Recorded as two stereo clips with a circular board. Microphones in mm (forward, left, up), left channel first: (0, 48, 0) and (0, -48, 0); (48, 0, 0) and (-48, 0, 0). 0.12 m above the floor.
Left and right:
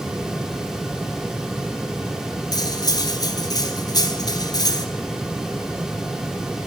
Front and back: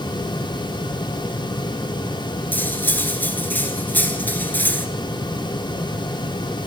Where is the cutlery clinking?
65° left, 0.9 m.